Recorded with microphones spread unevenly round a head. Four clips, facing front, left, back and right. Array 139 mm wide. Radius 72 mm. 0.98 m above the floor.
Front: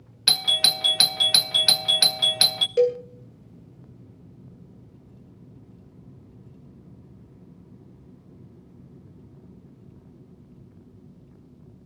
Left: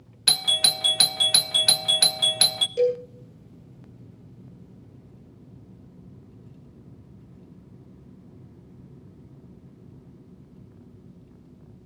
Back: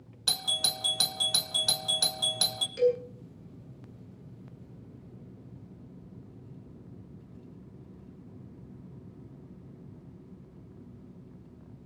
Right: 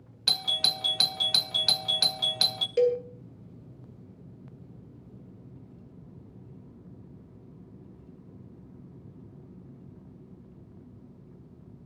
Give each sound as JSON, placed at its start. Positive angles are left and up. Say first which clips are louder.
{"t": 0.3, "sound": "a doorbell", "louder": "left 4 dB, front 7 dB", "azimuth_deg": 30, "distance_m": 0.9}
{"t": 2.8, "sound": "a cowbell", "louder": "left 1 dB, front 5 dB", "azimuth_deg": -25, "distance_m": 2.5}